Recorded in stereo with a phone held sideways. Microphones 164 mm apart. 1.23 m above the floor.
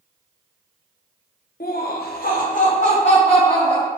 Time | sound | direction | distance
1.6 | laughter | 60° left (ahead or behind) | 0.7 m